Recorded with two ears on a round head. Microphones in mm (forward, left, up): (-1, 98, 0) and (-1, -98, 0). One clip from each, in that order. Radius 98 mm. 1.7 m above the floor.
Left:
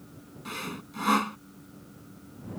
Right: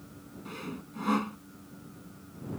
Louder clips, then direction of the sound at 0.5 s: Left 5 dB; 50° left (ahead or behind).